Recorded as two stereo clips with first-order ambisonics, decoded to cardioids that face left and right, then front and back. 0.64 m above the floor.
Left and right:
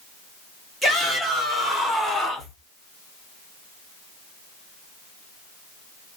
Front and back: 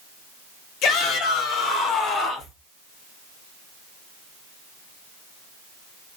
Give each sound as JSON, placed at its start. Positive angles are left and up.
{"t": 0.8, "sound": "a shout", "azimuth_deg": -5, "distance_m": 1.9}